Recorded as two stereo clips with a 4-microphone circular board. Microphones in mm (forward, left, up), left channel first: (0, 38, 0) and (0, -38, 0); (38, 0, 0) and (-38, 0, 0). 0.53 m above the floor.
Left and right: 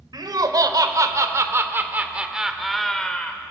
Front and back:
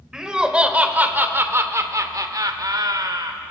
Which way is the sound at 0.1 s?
100° right.